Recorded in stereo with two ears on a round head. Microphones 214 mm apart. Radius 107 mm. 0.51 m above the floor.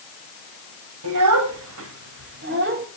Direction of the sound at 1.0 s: 80° right.